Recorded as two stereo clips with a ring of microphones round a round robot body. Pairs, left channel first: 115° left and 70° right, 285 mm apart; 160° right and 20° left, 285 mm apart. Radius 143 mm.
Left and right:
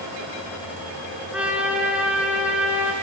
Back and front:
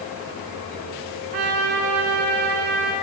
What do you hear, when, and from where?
1.3 s a trumpet: 20° left, 1.9 m